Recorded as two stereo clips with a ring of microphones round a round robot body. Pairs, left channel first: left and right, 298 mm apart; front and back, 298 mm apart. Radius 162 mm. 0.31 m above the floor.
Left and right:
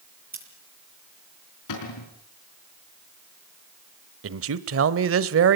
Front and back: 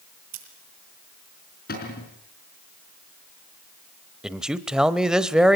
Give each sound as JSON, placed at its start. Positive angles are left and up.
{"t": 0.3, "sound": "scissors", "azimuth_deg": -150, "distance_m": 7.5}
{"t": 1.7, "sound": "a cupboard door", "azimuth_deg": 60, "distance_m": 5.0}
{"t": 4.2, "sound": "a man speaking", "azimuth_deg": -95, "distance_m": 1.2}